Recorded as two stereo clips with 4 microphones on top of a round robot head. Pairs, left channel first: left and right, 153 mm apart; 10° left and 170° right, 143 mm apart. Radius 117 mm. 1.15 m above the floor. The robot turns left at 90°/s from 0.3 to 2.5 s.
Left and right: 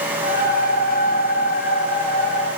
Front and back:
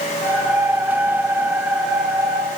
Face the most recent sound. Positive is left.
No sound to turn to.